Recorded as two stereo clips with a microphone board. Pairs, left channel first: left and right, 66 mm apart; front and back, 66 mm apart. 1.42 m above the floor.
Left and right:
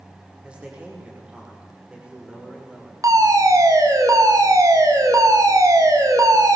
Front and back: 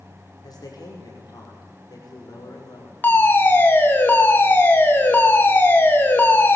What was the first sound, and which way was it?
A man speaking, 15° right.